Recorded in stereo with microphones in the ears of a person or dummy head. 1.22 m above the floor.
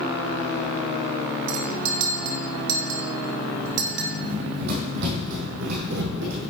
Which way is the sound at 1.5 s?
75° right (ahead or behind).